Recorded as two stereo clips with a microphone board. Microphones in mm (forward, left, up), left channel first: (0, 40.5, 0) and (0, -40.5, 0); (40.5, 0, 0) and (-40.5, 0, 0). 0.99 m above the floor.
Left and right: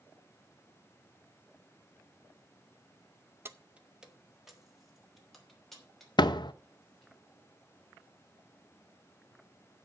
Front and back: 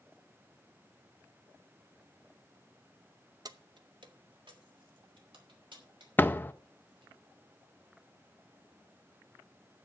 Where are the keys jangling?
150° right, 0.6 m; by 7.1 s 175° left, 4.5 m.